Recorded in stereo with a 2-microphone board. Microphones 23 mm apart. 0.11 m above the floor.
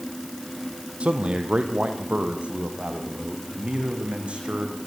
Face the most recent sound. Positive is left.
turn(degrees=-65)  # may be behind; listen again after turning